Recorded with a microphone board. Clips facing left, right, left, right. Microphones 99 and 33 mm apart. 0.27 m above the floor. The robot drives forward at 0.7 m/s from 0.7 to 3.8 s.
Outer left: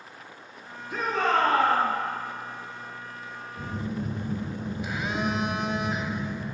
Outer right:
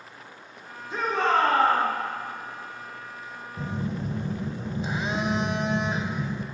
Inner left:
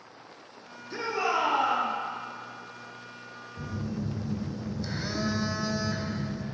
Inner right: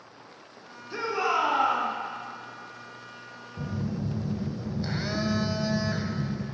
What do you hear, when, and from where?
0.9 s a shout: 25° right (ahead or behind), 2.5 m; by 1.9 s 35° right (ahead or behind), 1.8 m
3.6 s a phone buzzing: 30° right (ahead or behind), 0.5 m